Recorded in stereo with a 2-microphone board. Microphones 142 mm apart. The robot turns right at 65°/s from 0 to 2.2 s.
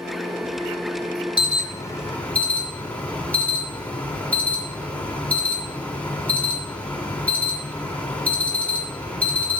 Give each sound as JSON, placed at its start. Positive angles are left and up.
{"t": 1.4, "sound": "an alarm", "azimuth_deg": 110, "distance_m": 2.5}